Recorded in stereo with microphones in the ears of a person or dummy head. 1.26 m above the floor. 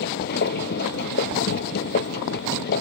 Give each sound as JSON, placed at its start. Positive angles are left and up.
{"t": 0.0, "sound": "a machine running", "side_deg": 60}